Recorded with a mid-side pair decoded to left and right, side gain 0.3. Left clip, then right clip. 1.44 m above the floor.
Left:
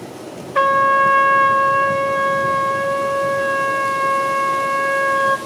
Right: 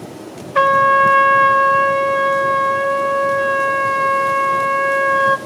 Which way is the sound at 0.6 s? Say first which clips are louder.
Right 2 dB; 30° right.